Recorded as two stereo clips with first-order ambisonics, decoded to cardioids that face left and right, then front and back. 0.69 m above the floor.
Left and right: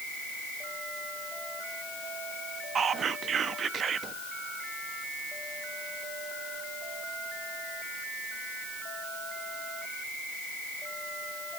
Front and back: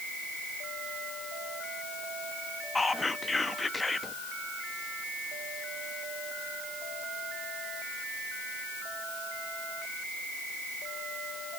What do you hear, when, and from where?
2.8 s whispering: 65° right, 0.5 m